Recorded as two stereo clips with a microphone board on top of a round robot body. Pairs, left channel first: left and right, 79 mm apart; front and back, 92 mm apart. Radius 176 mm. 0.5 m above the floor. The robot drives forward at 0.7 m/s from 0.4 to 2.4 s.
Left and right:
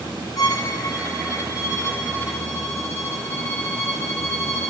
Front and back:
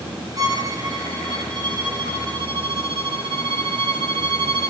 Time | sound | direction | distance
0.4 | a violin | 130° left | 2.5 m